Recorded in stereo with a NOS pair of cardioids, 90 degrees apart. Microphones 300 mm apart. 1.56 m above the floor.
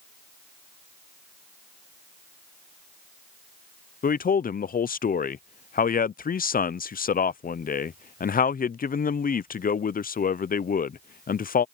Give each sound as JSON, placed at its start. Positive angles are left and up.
{"t": 4.0, "sound": "a man speaking", "azimuth_deg": 30}